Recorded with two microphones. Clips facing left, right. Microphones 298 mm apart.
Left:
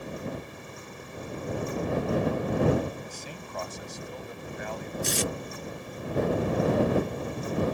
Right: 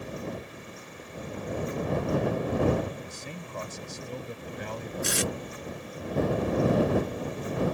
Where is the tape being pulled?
75° right (ahead or behind).